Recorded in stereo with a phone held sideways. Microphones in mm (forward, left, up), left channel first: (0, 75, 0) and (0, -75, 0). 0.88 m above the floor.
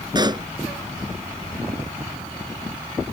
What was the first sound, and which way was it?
A pop, 30° right (ahead or behind).